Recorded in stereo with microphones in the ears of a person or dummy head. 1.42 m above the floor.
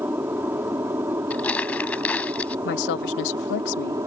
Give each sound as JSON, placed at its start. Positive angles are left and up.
{"t": 0.0, "sound": "an aircraft", "side_deg": -15}
{"t": 1.3, "sound": "crumpling", "side_deg": 5}
{"t": 2.6, "sound": "a woman speaking", "side_deg": 60}